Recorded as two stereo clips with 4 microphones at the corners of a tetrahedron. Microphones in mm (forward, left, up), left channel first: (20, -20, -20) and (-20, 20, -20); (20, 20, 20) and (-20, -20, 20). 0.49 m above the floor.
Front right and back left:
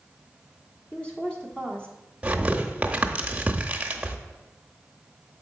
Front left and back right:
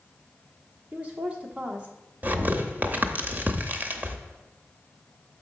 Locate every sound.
0.9 s a woman speaking: 95° right, 1.0 m
2.2 s tearing paper: 170° right, 0.7 m